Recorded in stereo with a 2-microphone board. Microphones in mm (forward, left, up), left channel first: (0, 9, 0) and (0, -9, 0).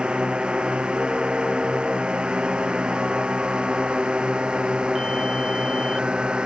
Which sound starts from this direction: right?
A drone, at 0.0 s.